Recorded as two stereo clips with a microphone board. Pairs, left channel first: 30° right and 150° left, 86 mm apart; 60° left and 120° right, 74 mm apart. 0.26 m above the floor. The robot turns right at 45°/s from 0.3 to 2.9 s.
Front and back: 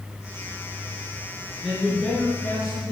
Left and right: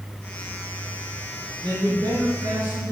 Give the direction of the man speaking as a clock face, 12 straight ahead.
4 o'clock.